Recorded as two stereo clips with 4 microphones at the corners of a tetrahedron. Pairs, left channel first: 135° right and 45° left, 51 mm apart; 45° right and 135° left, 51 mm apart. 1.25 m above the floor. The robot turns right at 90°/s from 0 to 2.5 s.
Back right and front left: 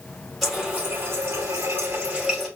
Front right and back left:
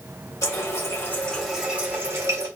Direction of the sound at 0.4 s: 45° right.